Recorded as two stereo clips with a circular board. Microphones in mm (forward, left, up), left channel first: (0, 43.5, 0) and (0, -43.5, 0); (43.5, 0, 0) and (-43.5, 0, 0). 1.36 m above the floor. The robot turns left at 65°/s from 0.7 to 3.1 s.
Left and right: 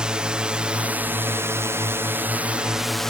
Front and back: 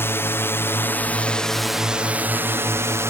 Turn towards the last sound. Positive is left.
turn(degrees=170)